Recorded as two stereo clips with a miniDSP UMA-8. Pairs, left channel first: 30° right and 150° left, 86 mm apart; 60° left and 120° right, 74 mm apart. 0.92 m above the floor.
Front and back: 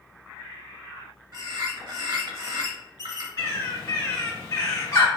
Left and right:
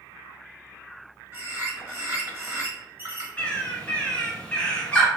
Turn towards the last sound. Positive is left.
turn(degrees=0)